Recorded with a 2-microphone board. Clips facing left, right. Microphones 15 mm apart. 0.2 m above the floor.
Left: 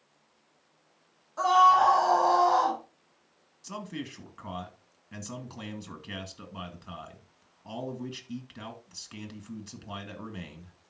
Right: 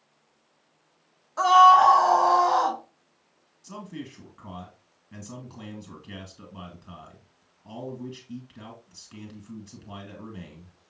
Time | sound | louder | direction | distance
1.4 | a scream | right 5 dB | 35° right (ahead or behind) | 1.5 m
3.6 | a man speaking | left 1 dB | 20° left (ahead or behind) | 2 m